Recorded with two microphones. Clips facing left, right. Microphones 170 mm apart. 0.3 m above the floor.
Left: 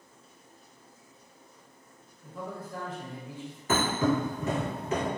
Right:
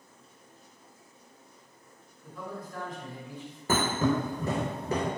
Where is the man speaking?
25° left (ahead or behind), 1.1 m.